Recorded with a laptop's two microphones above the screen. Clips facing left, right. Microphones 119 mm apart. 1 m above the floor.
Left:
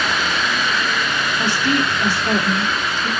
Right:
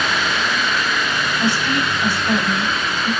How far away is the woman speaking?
About 2.5 m.